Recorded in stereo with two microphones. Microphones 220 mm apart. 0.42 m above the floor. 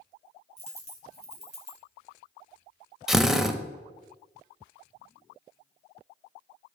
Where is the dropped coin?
30° left (ahead or behind), 1.7 m.